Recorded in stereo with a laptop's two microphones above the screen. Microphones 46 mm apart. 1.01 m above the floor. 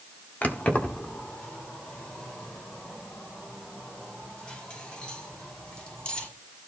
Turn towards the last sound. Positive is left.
turn(degrees=25)  # may be behind; listen again after turning